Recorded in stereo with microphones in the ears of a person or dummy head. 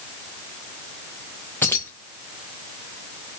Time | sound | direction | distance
1.6 | keys jangling | 15° left (ahead or behind) | 0.7 m